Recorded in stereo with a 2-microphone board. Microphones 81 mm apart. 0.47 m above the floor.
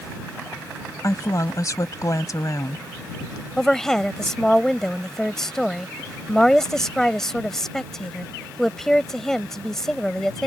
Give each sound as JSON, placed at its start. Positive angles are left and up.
{"t": 1.0, "sound": "a woman speaking", "side_deg": 45}
{"t": 3.6, "sound": "a woman speaking", "side_deg": 5}